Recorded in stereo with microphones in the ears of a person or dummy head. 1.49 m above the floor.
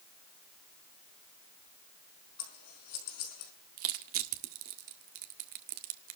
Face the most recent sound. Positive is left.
turn(degrees=-50)  # may be behind; listen again after turning